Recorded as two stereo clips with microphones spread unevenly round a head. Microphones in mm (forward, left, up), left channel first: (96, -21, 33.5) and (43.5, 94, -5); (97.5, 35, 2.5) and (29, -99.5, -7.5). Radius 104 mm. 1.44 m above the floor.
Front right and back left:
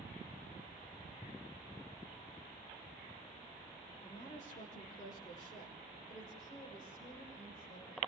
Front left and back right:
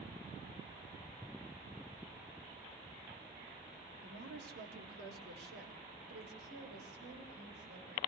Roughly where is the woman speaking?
Behind right.